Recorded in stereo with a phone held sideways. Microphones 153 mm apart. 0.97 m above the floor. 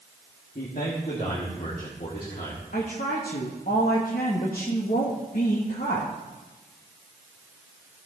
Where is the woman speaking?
70° left (ahead or behind), 1.2 m.